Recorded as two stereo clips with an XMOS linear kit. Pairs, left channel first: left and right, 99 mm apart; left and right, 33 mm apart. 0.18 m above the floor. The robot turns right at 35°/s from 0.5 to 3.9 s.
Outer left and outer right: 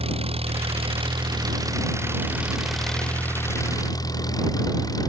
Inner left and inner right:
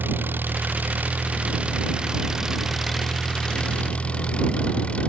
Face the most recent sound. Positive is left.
turn(degrees=40)